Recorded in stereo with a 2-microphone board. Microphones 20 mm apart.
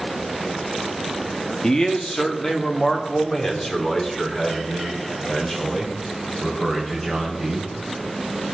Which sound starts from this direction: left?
A man speaking, at 1.6 s.